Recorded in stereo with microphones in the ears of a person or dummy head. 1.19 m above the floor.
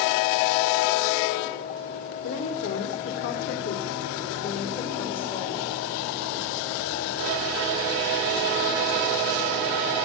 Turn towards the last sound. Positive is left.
turn(degrees=25)  # may be behind; listen again after turning